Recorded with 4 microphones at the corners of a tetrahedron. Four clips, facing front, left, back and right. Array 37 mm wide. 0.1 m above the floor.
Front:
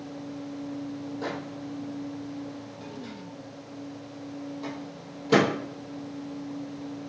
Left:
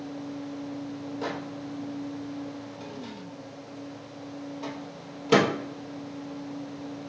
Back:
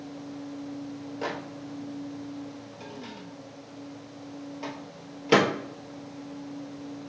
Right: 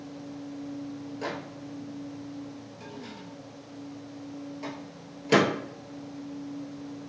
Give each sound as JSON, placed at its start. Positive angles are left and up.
{"t": 1.2, "sound": "a microwave", "azimuth_deg": 170, "distance_m": 1.6}